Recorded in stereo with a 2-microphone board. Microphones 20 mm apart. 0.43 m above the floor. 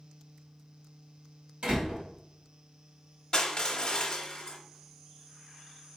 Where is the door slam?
65° right (ahead or behind), 1.9 m.